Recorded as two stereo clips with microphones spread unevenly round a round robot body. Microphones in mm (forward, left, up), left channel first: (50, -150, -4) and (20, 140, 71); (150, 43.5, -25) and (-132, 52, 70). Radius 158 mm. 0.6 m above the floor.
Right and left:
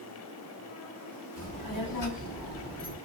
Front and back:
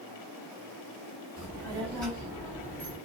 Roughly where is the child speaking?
Right.